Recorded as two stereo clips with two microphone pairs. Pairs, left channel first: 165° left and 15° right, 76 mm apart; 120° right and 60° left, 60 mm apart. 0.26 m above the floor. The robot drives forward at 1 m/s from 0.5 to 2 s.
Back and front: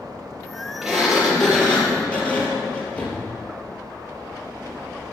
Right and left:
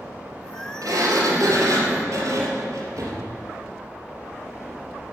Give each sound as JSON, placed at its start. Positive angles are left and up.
{"t": 0.8, "sound": "a sliding door", "azimuth_deg": 75, "distance_m": 4.0}